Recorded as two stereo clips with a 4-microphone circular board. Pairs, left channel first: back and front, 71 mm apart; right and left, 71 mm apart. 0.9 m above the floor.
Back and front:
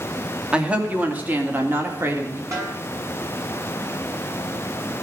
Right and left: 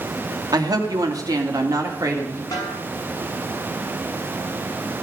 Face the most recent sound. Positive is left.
turn(degrees=-50)